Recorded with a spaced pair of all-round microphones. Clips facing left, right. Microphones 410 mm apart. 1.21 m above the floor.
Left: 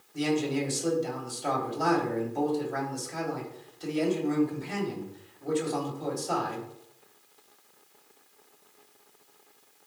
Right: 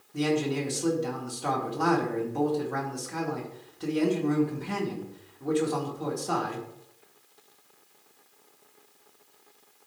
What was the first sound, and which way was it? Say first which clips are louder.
A man speaking: right 1 dB; 65° right (ahead or behind).